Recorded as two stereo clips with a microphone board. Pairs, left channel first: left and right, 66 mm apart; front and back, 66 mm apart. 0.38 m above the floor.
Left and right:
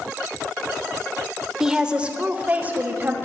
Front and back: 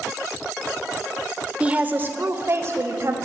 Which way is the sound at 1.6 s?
155° right.